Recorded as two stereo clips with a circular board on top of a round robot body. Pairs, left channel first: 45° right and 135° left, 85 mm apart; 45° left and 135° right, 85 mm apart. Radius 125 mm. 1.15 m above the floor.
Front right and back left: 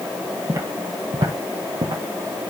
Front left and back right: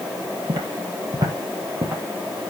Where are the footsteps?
170° right, 1.7 m; by 2.0 s 170° left, 3 m.